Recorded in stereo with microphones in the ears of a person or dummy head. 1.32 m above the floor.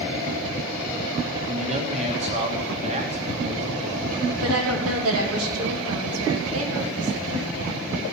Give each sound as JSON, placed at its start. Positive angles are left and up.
{"t": 1.4, "sound": "a man speaking", "side_deg": -40, "distance_m": 1.7}
{"t": 4.4, "sound": "a woman speaking", "side_deg": -80, "distance_m": 2.5}